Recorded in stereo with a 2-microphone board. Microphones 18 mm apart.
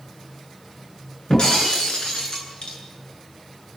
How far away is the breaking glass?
About 6.5 m.